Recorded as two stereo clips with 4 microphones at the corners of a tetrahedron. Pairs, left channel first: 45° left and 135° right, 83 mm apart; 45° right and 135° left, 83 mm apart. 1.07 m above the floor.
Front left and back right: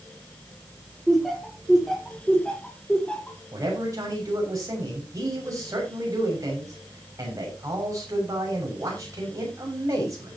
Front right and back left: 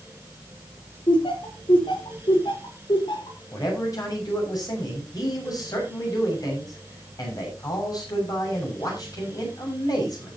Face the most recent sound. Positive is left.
turn(degrees=-85)